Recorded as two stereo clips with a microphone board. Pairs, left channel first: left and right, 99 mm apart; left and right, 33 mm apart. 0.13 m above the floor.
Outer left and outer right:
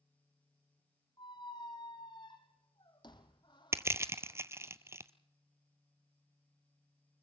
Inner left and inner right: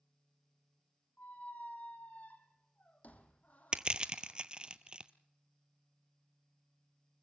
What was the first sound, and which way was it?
A squeak, 50° left (ahead or behind).